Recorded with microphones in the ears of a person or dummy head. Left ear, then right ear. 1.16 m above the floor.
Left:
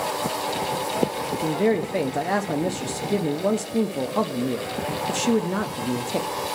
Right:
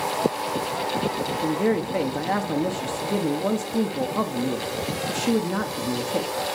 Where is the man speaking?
15° left (ahead or behind), 0.6 m.